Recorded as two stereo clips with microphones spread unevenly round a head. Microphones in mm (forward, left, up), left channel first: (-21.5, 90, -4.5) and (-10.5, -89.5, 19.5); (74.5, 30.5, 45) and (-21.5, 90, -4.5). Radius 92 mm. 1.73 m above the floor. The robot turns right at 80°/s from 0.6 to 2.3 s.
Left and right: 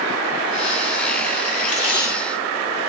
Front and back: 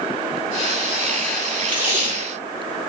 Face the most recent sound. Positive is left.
turn(degrees=-170)